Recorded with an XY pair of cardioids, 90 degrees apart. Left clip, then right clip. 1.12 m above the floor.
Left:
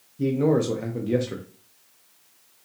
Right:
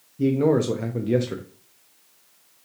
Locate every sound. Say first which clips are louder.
0.2 s a man speaking: right 2 dB; 15° right, 0.5 m